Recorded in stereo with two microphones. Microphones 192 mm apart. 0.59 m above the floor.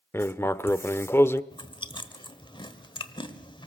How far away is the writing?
About 0.5 m.